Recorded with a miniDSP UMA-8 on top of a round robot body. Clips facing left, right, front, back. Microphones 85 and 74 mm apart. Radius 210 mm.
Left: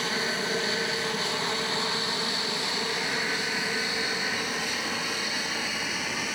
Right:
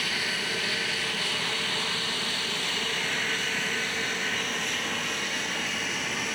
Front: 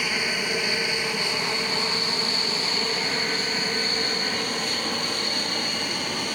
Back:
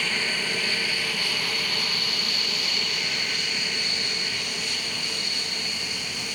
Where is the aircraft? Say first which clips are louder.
Left 3 dB, front 1 dB; 65° left; by 6.3 s 5° left.